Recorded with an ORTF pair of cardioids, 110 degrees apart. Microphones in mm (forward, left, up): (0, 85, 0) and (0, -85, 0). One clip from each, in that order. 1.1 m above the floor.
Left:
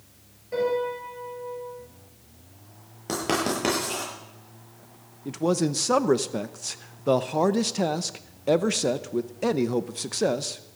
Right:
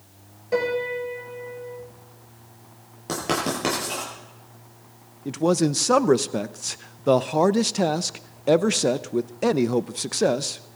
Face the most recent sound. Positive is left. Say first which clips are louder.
# right 3 dB
turn(degrees=-15)